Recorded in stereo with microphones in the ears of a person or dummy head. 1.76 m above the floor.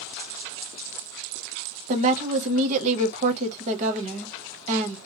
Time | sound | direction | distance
1.9 | a woman speaking | 45° right (ahead or behind) | 0.8 m